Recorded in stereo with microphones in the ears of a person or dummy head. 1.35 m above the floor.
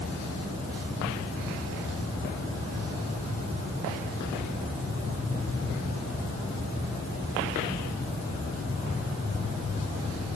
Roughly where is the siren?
I don't hear a siren.